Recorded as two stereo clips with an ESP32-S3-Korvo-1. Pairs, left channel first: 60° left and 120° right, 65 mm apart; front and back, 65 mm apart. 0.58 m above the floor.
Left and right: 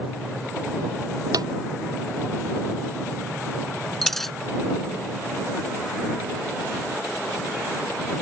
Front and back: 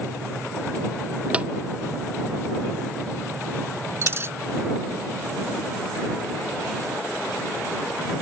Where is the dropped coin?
145° left.